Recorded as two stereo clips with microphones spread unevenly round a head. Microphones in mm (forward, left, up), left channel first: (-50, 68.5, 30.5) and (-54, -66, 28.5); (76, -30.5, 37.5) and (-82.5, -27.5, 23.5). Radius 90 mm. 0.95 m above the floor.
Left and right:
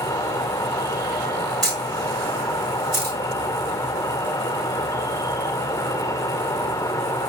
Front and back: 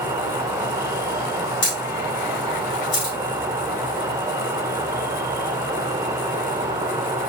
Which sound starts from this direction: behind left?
An insect, at 0.0 s.